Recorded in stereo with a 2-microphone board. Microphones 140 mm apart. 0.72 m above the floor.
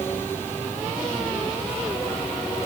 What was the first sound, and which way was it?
Only background noise.